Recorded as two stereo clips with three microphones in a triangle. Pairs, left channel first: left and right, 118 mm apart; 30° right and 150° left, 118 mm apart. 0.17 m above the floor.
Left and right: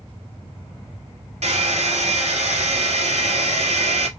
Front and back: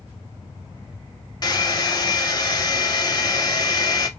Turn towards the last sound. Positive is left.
turn(degrees=-80)